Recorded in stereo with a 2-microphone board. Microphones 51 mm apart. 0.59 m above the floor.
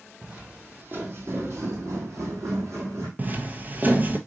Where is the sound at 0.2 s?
25° right (ahead or behind), 1.4 m; by 3.1 s 65° right (ahead or behind), 1.8 m.